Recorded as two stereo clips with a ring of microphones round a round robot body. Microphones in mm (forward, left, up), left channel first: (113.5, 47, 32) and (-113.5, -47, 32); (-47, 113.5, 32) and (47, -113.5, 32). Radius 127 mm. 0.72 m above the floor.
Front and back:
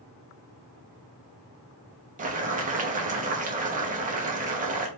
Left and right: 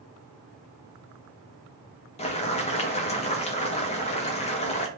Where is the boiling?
165° left, 0.9 m.